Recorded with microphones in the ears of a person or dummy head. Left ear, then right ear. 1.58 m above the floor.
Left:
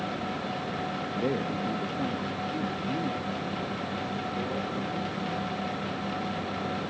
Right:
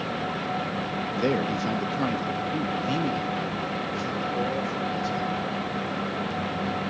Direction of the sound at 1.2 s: 30° right (ahead or behind).